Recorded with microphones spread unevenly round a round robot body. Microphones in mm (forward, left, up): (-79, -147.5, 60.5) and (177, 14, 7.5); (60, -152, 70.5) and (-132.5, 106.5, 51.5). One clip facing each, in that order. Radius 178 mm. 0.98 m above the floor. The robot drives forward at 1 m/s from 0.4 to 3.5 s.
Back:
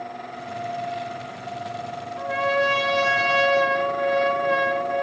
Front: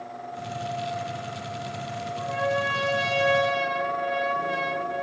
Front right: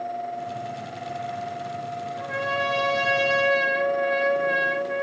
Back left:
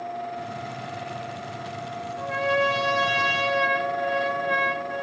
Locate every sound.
2.2 s a trumpet: 150° right, 2.5 m; by 5.0 s 160° right, 3.5 m